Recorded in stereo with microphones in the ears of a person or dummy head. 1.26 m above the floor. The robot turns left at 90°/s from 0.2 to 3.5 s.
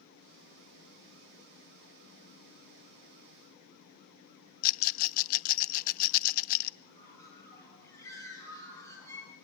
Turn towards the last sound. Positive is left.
turn(degrees=20)  # may be behind; listen again after turning